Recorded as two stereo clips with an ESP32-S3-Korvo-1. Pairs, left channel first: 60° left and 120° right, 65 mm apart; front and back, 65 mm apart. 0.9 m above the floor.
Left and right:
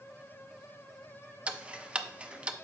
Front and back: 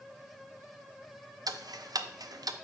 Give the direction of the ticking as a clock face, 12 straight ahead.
6 o'clock.